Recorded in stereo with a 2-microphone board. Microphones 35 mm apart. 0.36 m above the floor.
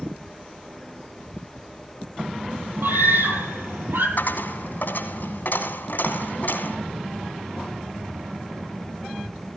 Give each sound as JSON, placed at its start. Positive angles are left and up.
{"t": 2.8, "sound": "a scream", "side_deg": -85, "distance_m": 10.0}
{"t": 4.2, "sound": "a dropped coin", "side_deg": 60, "distance_m": 2.5}